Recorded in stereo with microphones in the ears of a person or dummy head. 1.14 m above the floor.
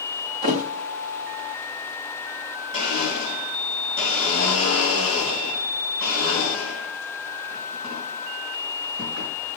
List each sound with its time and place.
0.4 s a thud: 50° right (ahead or behind), 1.1 m
2.7 s a blender: 60° right (ahead or behind), 4 m